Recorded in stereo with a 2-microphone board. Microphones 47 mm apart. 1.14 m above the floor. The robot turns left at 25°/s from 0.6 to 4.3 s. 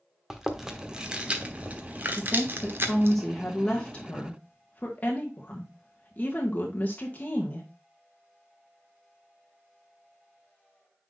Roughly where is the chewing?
Centre.